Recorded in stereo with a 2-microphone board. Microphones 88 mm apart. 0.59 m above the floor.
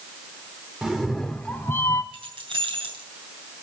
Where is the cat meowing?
5° right (ahead or behind), 0.9 m; by 2.0 s 35° left (ahead or behind), 0.6 m.